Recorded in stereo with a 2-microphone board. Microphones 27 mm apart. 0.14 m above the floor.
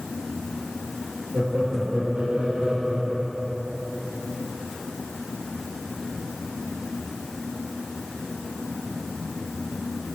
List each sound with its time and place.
1.3 s laughter: 50° right (ahead or behind), 3 m; by 3.6 s 65° right (ahead or behind), 5 m